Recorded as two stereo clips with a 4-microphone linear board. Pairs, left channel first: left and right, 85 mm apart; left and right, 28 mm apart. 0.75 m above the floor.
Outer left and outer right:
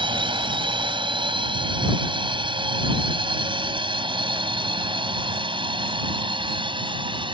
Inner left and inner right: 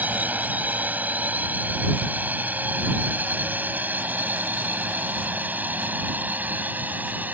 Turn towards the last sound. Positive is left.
turn(degrees=-75)  # may be behind; listen again after turning